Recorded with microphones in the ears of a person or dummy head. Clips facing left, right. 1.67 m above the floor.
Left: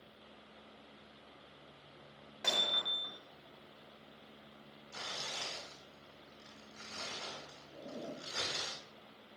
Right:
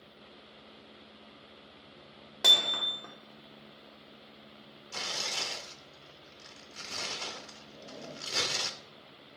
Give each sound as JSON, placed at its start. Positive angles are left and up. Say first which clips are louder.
{"t": 2.4, "sound": "hammering", "louder": "right 3 dB", "side_deg": -75, "distance_m": 1.3}
{"t": 4.9, "sound": "tearing paper", "louder": "right 6 dB", "side_deg": -70, "distance_m": 0.8}
{"t": 7.7, "sound": "a zipper", "louder": "left 1 dB", "side_deg": 35, "distance_m": 1.9}